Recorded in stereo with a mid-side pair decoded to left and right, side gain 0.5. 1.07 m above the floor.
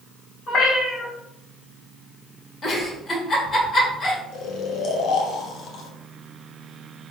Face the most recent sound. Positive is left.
turn(degrees=70)